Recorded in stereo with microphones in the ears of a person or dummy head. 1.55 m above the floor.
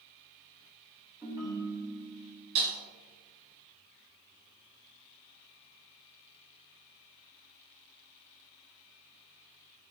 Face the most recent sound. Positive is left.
turn(degrees=-45)  # may be behind; listen again after turning